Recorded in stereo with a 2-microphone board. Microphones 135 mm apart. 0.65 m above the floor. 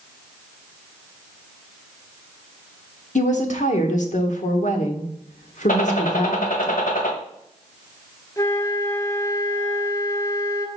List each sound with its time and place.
3.1 s a woman speaking: 65° left (ahead or behind), 1.5 m
5.7 s a gunshot: 80° left, 1.6 m
8.4 s a flute: 20° left (ahead or behind), 0.7 m